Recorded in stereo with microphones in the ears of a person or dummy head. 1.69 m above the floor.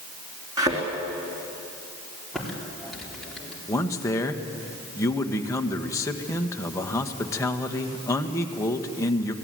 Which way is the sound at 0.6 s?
20° right (ahead or behind).